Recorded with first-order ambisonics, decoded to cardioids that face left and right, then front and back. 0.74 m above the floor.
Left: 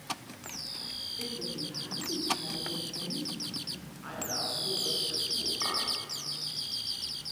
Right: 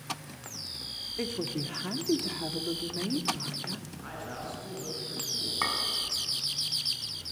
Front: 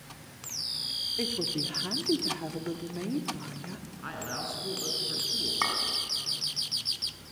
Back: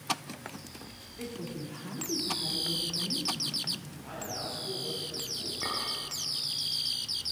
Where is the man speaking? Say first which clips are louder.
Left 6 dB, front 5 dB; straight ahead, 7 m.